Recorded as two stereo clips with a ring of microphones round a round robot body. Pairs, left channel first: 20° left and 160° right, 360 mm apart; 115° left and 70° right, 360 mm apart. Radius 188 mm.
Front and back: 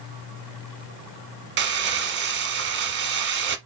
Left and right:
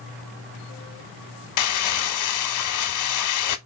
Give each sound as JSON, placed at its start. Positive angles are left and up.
{"t": 1.6, "sound": "crumpling", "azimuth_deg": 145, "distance_m": 1.0}